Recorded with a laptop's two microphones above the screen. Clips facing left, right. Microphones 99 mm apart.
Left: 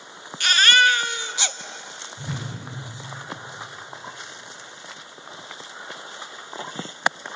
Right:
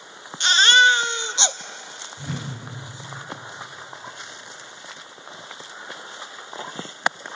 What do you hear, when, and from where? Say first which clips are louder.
0.4 s a baby crying: right 2 dB; 20° right (ahead or behind), 0.9 m
2.2 s a whoosh: right 1 dB; 10° left (ahead or behind), 3 m